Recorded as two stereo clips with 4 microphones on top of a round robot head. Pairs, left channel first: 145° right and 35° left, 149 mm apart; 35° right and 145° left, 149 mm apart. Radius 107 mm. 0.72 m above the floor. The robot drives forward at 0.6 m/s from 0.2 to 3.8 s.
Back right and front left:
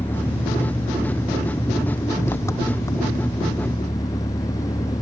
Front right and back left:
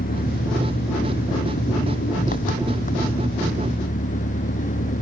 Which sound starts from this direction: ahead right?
An engine running, at 0.0 s.